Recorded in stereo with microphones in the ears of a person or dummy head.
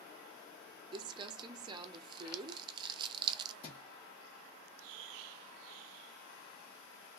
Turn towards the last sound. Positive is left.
turn(degrees=30)  # may be behind; listen again after turning